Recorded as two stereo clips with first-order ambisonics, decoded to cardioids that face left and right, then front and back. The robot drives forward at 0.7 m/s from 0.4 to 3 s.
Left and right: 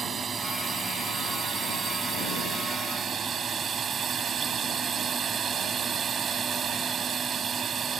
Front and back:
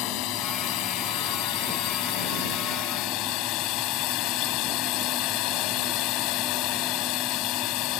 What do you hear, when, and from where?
0.0 s a drone: 20° right; by 8.0 s 25° right